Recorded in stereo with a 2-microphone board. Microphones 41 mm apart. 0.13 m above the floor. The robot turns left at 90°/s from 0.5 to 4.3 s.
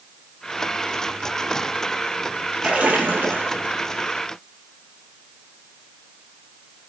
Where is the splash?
30° right, 1.8 m; by 3.7 s 125° right, 1.8 m.